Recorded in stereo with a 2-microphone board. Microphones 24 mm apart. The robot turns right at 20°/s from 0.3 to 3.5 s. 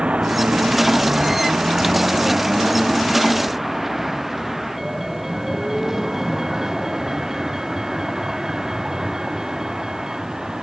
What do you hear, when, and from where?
0.0 s a vehicle: 50° right (ahead or behind); by 10.6 s 25° right (ahead or behind)